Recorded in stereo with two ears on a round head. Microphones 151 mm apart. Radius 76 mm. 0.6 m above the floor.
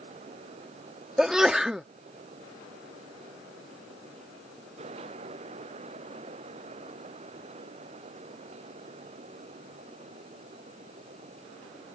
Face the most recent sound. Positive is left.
turn(degrees=-5)  # may be behind; listen again after turning